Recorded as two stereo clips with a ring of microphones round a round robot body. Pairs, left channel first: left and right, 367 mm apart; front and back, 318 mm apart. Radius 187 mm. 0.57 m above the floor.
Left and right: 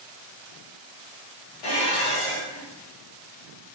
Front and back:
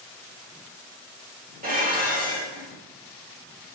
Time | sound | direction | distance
1.6 | dishes clattering | 115° left | 1.3 m